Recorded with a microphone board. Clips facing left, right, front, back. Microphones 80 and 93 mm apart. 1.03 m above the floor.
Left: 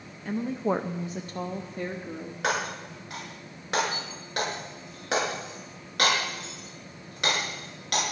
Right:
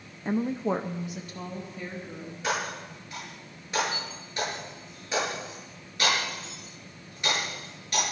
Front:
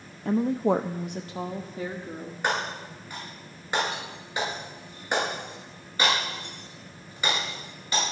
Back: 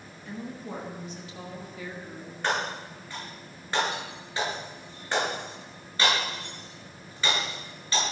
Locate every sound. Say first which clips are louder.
0.2 s a woman speaking: even, front 15 dB; 30° right, 0.6 m; by 2.3 s 60° left, 1.8 m
2.4 s breaking glass: left 2 dB, even; 70° left, 8.5 m